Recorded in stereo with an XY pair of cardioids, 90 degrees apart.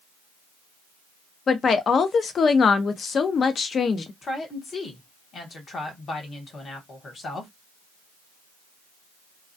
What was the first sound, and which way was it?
A woman speaking, 50° left.